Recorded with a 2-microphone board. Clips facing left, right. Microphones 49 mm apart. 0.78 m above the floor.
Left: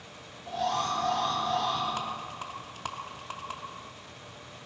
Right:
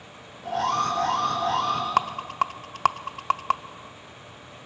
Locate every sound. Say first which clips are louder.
0.4 s an alarm: right 5 dB; 65° right (ahead or behind), 4.5 m
2.0 s a rattle: right 11 dB; 75° right (ahead or behind), 0.6 m